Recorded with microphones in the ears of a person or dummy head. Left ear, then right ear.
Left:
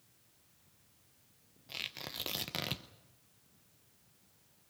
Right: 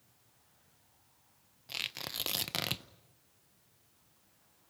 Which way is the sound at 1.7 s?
20° right (ahead or behind).